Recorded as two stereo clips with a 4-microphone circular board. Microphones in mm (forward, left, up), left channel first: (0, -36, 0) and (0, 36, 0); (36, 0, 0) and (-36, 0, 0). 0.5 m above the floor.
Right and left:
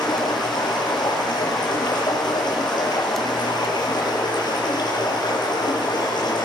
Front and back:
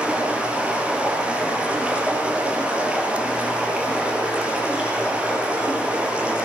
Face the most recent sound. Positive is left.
turn(degrees=-105)